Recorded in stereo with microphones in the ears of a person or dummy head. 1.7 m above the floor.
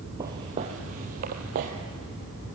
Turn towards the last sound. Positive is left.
turn(degrees=-40)  # may be behind; listen again after turning